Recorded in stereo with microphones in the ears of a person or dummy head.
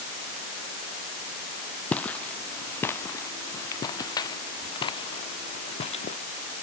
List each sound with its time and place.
1.9 s footsteps: 10° left (ahead or behind); by 6.2 s 40° left (ahead or behind)